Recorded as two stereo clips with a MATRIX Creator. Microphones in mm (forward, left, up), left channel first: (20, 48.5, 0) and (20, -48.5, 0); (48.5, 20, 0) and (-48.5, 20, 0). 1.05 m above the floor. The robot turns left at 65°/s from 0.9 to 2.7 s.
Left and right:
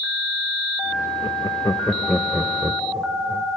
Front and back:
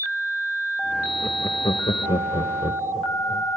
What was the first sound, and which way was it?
Laughter, 65° left.